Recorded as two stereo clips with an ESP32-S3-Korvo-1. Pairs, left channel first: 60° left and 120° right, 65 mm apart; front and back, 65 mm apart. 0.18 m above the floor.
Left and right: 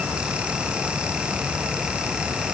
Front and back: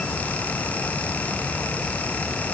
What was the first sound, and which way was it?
Only background noise.